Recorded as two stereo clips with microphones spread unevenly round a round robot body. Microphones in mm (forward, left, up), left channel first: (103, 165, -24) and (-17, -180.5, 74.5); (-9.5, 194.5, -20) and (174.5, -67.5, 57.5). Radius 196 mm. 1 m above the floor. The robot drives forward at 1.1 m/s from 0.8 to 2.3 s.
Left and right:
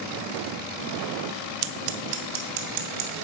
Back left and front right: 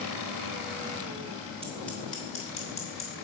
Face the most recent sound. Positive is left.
turn(degrees=-160)